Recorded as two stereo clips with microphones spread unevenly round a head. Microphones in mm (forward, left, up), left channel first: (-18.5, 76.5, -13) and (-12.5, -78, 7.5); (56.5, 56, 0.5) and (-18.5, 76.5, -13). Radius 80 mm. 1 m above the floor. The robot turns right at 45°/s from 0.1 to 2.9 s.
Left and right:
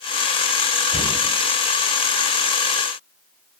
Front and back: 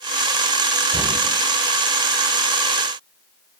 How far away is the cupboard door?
About 1.8 m.